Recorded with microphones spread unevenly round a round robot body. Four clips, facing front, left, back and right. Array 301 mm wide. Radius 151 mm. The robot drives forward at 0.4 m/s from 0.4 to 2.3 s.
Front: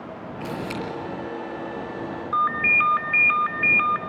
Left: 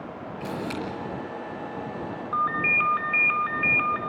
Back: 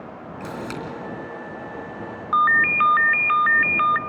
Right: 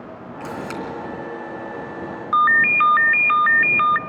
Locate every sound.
0.4 s a camera shutter: 135° right, 3 m
2.3 s a ringtone: 115° right, 0.9 m